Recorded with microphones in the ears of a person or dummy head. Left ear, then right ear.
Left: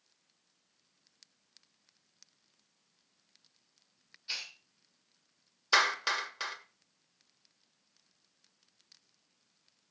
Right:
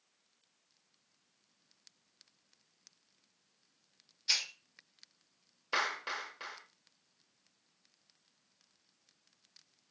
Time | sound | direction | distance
4.3 | a hiss | 30° right (ahead or behind) | 1.1 m
5.7 | a clap | 45° left (ahead or behind) | 1.4 m